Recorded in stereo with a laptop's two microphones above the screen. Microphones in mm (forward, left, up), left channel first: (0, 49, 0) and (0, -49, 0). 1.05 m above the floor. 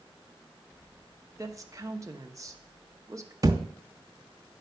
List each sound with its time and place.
1.4 s a woman speaking: 35° right (ahead or behind), 1.2 m
3.4 s a thud: 35° right (ahead or behind), 0.7 m